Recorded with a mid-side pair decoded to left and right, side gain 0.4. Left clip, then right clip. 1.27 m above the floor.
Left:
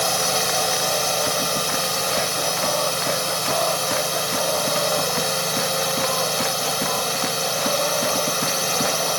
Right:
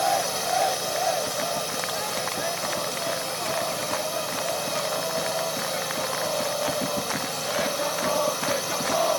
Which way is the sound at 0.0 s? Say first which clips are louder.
Left 3 dB; 60° left.